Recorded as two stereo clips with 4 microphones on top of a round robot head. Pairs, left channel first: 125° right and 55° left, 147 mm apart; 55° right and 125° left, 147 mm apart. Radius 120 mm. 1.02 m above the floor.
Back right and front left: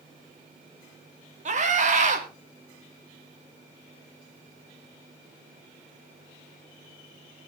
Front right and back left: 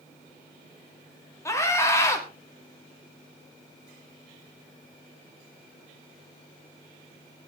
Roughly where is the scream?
Ahead.